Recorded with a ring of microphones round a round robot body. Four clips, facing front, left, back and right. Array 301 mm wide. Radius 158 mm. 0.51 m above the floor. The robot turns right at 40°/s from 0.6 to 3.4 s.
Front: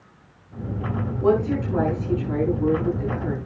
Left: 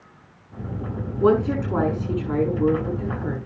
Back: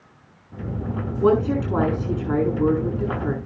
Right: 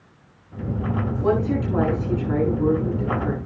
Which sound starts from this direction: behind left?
A woman speaking, at 1.2 s.